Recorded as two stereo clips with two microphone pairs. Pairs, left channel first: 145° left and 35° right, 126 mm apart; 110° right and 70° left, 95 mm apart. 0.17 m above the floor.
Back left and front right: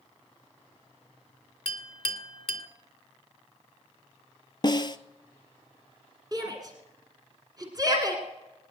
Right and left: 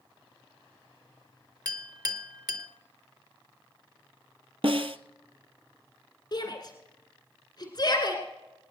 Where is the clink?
110° left, 1.1 m.